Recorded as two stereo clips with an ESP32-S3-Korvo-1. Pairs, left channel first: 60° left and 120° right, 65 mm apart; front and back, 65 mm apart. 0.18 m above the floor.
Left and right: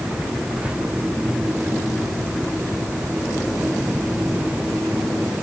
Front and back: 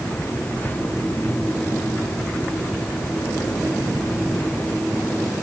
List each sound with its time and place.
Only background noise.